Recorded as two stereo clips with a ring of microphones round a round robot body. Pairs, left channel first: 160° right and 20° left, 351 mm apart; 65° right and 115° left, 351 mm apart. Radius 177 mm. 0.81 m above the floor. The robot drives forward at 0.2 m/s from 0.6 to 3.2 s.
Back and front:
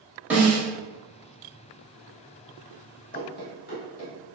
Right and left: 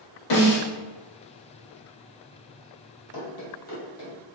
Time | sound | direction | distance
0.3 | a snare drum | 60° right | 1.5 m
3.1 | running footsteps | 100° right | 1.0 m